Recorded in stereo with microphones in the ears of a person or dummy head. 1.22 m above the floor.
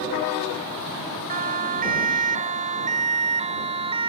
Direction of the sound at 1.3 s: 40° right (ahead or behind).